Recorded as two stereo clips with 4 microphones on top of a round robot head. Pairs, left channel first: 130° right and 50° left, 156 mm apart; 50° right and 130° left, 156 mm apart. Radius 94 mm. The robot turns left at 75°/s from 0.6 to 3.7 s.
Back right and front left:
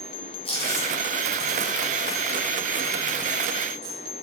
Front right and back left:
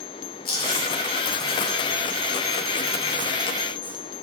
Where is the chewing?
75° right, 3 m; by 4.0 s 50° left, 3 m.